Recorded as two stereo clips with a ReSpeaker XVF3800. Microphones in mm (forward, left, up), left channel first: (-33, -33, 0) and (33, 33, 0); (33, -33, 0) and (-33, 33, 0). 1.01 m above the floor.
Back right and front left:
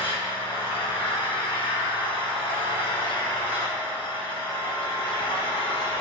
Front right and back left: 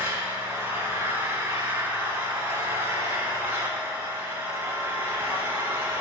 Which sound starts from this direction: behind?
An engine running, at 0.0 s.